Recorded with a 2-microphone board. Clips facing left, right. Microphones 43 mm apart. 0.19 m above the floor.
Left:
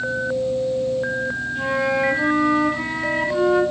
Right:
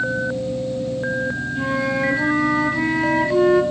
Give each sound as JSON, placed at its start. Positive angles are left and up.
{"t": 1.6, "sound": "a flute", "side_deg": 20, "distance_m": 1.6}